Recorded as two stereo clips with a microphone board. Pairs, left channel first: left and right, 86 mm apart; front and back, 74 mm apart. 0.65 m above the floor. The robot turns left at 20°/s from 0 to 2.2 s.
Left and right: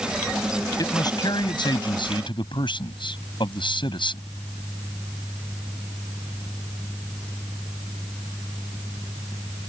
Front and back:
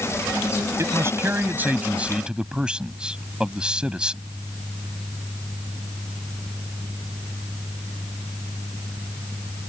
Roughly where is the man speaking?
Behind left.